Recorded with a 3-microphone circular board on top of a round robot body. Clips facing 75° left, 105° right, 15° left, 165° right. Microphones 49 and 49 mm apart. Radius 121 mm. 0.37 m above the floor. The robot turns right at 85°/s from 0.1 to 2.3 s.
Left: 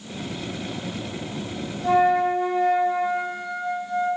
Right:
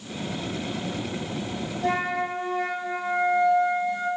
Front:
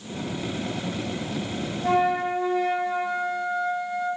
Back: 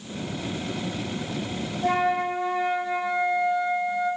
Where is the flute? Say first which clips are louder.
Left 8 dB, front 1 dB; 135° right, 5 m; by 4.1 s 95° right, 5 m.